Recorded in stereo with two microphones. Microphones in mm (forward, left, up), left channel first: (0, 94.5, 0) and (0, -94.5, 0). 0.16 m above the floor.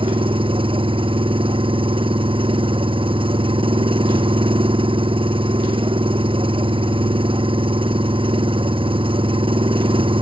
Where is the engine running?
30° right (ahead or behind).